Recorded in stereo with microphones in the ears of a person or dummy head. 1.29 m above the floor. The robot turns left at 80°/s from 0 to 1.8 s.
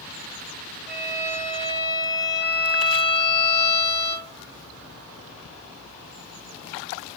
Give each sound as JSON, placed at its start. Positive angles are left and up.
{"t": 0.9, "sound": "a violin", "azimuth_deg": -40, "distance_m": 1.0}